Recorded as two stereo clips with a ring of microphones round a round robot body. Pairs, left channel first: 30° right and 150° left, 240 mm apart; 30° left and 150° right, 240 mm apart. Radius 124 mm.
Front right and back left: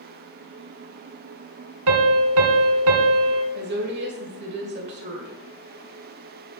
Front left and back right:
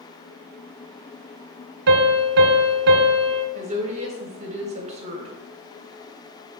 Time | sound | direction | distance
1.9 | a piano | 165° left | 1.2 m
3.5 | a woman speaking | 160° left | 1.9 m